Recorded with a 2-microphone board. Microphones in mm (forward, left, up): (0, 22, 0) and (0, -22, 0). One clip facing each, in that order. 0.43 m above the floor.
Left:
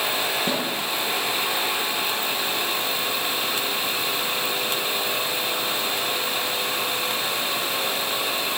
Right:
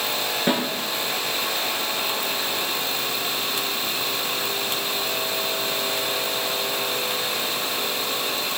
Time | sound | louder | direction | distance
0.5 | a snare drum | right 3 dB | 30° right (ahead or behind) | 6 m